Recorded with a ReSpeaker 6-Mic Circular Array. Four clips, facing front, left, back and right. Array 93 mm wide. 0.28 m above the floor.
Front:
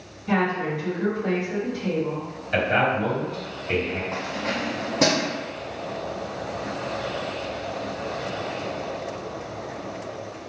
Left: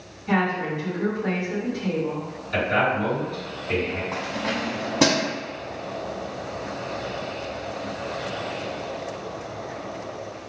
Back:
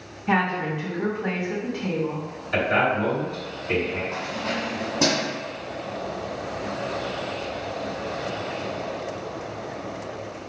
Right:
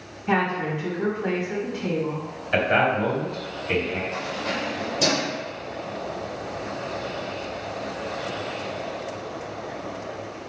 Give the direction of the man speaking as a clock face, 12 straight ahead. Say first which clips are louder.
Right 2 dB, even; 3 o'clock.